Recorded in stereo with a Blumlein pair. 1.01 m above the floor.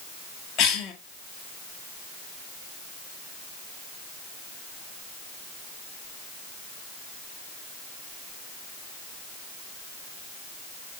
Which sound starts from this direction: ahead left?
A cough, at 0.6 s.